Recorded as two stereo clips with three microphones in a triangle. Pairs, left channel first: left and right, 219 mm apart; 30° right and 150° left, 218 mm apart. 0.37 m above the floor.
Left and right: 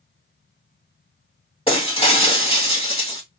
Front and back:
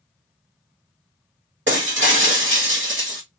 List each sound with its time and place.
1.7 s breaking glass: 150° left, 1.2 m